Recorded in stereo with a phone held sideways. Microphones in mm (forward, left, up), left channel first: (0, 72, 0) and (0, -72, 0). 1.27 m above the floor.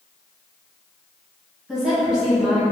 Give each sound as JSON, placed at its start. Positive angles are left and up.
{"t": 1.7, "sound": "a woman speaking", "side_deg": -5, "distance_m": 1.5}